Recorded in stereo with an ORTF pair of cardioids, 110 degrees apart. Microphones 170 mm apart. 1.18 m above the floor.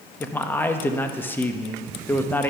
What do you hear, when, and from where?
0.2 s a man speaking: 10° left, 1.1 m